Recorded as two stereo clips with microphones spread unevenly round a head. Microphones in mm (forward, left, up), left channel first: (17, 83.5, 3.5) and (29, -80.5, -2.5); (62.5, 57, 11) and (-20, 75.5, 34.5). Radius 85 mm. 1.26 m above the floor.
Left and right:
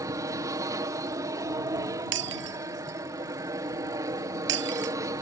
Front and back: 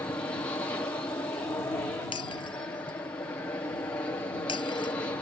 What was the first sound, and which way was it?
An aircraft, 35° right.